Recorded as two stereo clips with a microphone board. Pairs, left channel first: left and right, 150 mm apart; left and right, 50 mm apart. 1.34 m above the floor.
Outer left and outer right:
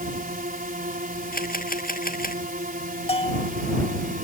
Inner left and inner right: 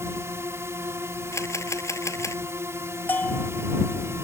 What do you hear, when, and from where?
0.0 s a drone: 70° right (ahead or behind)
1.3 s a camera shutter: 75° left (ahead or behind)
3.1 s a bell: 40° left (ahead or behind)